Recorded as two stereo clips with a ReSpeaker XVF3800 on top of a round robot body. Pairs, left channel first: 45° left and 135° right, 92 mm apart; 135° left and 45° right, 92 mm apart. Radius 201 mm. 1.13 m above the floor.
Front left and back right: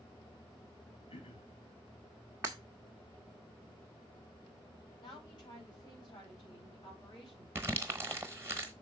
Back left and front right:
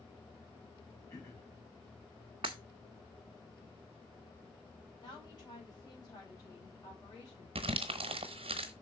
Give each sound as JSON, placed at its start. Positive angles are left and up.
{"t": 1.1, "sound": "throat clearing", "azimuth_deg": 75, "distance_m": 3.0}
{"t": 2.4, "sound": "breaking glass", "azimuth_deg": -75, "distance_m": 0.6}
{"t": 5.0, "sound": "a woman speaking", "azimuth_deg": 90, "distance_m": 5.0}
{"t": 7.5, "sound": "crumpling", "azimuth_deg": -70, "distance_m": 0.9}